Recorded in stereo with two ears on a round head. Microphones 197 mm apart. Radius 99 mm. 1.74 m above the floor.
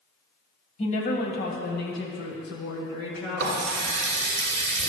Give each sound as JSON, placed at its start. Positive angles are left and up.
{"t": 0.8, "sound": "a woman speaking", "side_deg": 35, "distance_m": 1.5}
{"t": 3.4, "sound": "a running tap", "side_deg": -50, "distance_m": 1.5}